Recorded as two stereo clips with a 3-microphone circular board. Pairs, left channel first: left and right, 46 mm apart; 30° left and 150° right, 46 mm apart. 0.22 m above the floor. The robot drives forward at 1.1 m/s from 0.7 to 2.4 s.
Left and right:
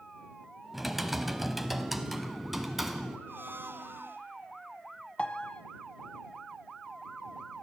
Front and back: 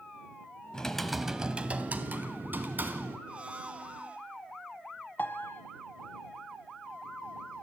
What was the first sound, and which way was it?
Typing on a keyboard, 10° right.